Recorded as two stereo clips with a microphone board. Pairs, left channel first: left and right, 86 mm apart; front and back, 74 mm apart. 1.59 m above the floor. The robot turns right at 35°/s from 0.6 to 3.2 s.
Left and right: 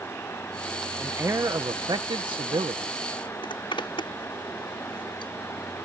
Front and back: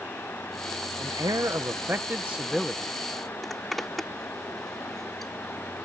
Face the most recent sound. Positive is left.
turn(degrees=85)